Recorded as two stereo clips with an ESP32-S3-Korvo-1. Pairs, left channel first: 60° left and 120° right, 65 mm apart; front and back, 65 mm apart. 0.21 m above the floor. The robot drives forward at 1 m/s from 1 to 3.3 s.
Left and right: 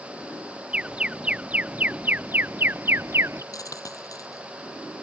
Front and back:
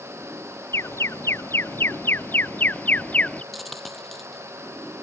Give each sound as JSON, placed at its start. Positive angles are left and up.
{"t": 0.7, "sound": "an alarm", "azimuth_deg": -50}
{"t": 3.5, "sound": "a dropped coin", "azimuth_deg": 90}